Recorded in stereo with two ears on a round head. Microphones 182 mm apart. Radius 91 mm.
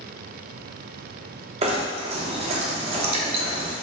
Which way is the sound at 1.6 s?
30° right (ahead or behind).